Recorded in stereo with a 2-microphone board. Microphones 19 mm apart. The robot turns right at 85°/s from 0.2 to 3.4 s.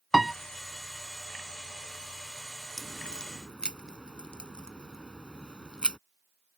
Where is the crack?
25° left (ahead or behind); by 6.0 s 60° left (ahead or behind).